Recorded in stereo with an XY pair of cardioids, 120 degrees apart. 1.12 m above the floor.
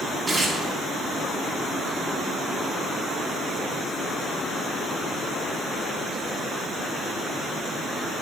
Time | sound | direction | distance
0.3 | tearing paper | 20° right | 2 m